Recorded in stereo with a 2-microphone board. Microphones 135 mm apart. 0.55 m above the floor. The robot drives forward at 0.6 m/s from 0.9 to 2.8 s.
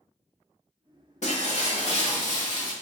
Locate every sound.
1.2 s breaking glass: 55° left (ahead or behind), 1.1 m; by 2.7 s 35° left (ahead or behind), 1.7 m